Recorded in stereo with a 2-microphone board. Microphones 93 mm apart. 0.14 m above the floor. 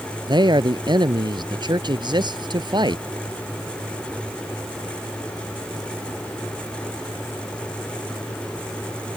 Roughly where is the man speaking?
Right.